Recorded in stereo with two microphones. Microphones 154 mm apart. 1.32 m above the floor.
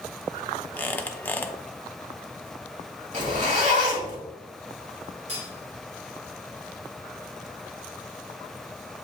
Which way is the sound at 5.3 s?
45° right (ahead or behind).